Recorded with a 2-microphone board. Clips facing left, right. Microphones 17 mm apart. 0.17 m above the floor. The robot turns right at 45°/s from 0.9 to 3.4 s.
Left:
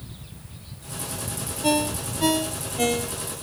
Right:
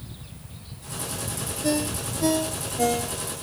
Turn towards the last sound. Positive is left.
turn(degrees=155)